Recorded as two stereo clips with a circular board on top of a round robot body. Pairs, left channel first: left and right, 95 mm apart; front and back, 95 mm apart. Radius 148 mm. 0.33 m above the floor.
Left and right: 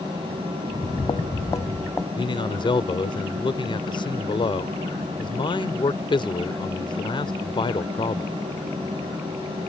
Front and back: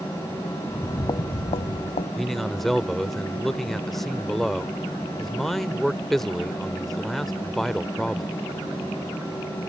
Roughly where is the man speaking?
Left.